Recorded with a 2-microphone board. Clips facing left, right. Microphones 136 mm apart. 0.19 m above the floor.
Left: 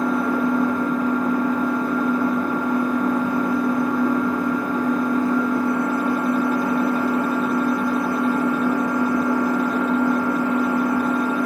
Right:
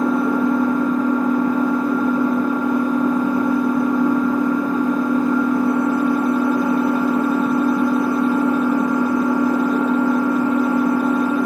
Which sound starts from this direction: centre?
An engine running, at 0.0 s.